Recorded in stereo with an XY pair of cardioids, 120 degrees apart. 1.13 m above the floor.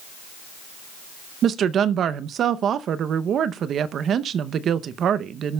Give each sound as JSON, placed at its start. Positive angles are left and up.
{"t": 1.4, "sound": "a woman speaking", "azimuth_deg": -50, "distance_m": 0.6}